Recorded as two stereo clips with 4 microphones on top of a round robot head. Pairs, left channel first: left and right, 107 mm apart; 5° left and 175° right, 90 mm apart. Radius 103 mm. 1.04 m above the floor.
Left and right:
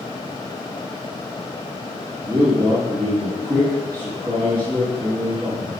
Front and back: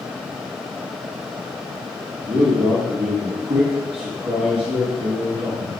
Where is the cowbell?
I don't hear a cowbell.